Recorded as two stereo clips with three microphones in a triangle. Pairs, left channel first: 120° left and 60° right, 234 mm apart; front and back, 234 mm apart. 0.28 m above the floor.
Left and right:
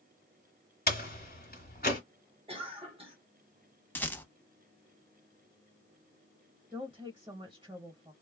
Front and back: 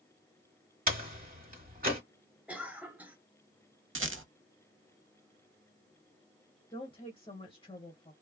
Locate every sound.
0.9 s a door slam: 150° left, 1.3 m
2.5 s a cough: 100° right, 1.1 m
4.0 s a rattle: 160° right, 0.6 m
6.7 s a woman speaking: 25° right, 0.9 m